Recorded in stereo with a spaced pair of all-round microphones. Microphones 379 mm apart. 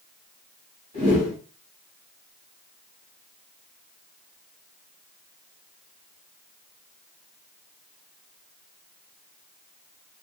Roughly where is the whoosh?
Right.